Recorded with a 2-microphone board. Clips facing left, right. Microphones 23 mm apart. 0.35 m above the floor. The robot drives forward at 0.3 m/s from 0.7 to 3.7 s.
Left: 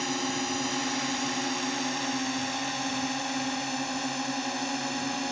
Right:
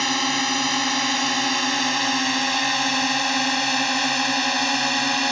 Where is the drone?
45° right (ahead or behind); by 5.3 s 55° right (ahead or behind).